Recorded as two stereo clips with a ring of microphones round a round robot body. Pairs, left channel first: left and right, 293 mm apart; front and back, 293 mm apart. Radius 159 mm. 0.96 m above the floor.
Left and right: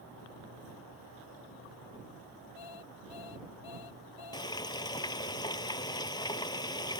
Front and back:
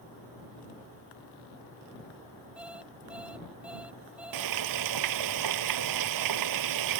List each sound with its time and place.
2.6 s an alarm clock: 95° left
4.3 s frying: 170° left